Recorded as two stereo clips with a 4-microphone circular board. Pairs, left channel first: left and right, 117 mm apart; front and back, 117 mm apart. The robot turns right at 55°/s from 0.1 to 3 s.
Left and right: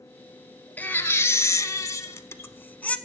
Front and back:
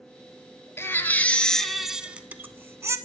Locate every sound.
0.8 s a baby crying: 35° left, 0.5 m; by 3.0 s 155° left, 0.5 m